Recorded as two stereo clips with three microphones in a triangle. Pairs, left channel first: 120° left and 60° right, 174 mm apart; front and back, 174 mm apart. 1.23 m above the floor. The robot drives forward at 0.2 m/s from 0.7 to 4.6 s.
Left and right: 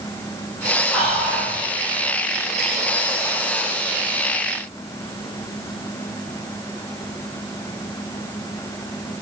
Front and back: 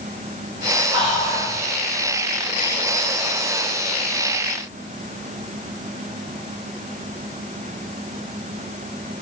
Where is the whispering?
155° right, 0.5 m; by 1.5 s 165° right, 0.6 m.